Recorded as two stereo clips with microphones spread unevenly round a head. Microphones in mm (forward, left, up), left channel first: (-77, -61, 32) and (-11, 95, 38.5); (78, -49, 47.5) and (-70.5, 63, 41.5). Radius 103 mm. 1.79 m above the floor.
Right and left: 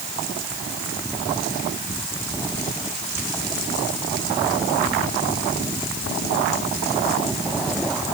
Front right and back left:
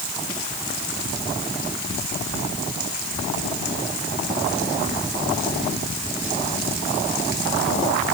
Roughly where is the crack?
I don't hear a crack.